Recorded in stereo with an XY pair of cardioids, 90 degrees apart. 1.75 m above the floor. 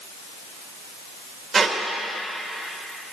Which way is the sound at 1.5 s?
55° right.